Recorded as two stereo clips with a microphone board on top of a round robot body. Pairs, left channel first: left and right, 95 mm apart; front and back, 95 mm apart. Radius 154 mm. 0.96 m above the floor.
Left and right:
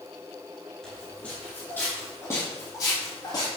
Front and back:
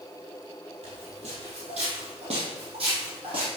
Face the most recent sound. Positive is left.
turn(degrees=145)